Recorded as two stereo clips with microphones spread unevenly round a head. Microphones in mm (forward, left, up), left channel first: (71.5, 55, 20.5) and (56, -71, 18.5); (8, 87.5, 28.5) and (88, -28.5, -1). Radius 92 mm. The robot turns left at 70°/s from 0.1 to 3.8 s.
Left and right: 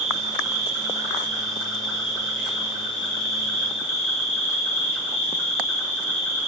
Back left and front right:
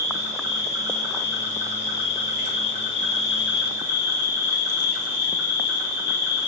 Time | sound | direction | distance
0.0 | an insect | 75° right | 1.5 m